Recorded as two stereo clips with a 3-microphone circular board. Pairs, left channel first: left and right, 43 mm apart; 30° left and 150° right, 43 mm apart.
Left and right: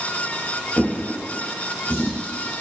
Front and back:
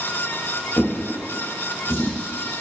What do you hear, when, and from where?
0.8 s a drawer: 35° left, 2.5 m